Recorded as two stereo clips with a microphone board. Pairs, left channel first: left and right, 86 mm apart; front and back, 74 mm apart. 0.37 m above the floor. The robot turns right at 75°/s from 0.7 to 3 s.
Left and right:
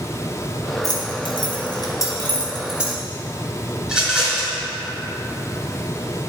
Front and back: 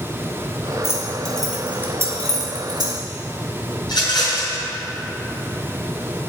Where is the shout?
No shout in this recording.